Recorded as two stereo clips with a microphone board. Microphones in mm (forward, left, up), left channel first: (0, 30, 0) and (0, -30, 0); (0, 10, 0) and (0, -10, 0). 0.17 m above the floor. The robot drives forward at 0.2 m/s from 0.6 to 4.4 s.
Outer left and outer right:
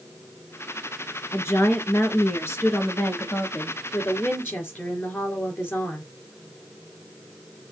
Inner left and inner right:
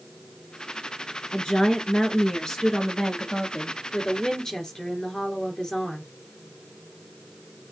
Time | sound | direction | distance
1.3 | a woman speaking | 50° left (ahead or behind) | 2 m